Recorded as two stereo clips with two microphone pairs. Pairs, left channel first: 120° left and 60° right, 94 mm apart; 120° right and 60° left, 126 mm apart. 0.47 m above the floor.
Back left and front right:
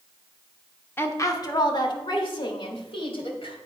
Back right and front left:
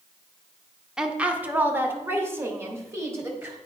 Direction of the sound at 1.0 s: 135° left.